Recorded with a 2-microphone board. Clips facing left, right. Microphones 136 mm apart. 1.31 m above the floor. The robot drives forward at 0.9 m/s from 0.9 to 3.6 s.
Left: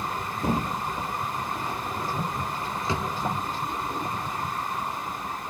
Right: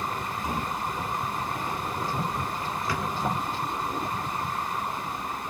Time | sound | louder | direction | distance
0.4 | a thud | left 6 dB | 60° left (ahead or behind) | 2.5 m
2.9 | a drawer | left 2 dB | 20° left (ahead or behind) | 0.7 m